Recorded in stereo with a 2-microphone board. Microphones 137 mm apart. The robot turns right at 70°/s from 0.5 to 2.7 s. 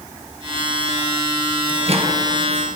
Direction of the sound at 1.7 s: 35° right (ahead or behind).